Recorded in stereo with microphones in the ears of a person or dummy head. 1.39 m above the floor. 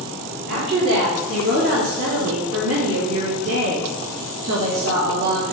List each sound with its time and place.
0.5 s a woman speaking: 55° right (ahead or behind), 4 m; by 5.5 s 85° right, 2.5 m